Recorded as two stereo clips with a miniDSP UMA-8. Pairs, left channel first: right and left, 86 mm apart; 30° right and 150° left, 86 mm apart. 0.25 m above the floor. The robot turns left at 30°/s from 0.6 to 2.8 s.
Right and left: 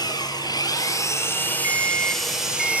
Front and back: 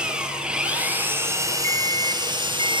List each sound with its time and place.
0.0 s an engine running: 130° right, 4.5 m; by 2.8 s 165° left, 4.5 m
1.6 s an alarm clock: 30° left, 1.5 m; by 2.8 s 5° right, 1.5 m